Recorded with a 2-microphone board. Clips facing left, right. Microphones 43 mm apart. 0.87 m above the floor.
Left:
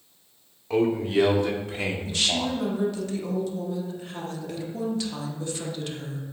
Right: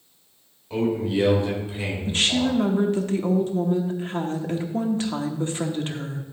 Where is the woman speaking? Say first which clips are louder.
Right 6 dB; 40° right (ahead or behind), 1.0 m.